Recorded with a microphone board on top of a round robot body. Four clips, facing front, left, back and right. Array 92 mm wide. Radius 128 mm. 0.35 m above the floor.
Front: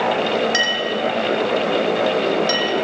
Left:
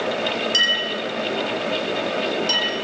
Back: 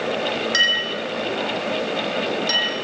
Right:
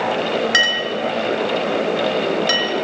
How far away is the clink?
About 4 m.